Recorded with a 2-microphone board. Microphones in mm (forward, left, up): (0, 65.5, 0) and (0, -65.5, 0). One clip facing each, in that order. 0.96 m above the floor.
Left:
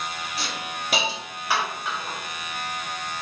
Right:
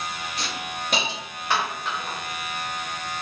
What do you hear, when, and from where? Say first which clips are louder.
0.4 s a hiss: right 1 dB; 5° left (ahead or behind), 0.7 m